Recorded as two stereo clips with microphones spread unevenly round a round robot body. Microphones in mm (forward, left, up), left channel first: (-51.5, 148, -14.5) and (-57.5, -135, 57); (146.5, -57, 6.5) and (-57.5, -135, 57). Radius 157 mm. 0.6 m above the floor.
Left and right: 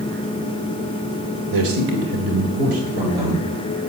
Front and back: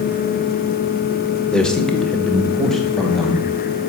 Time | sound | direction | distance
1.5 | a man speaking | 60° right | 1.7 m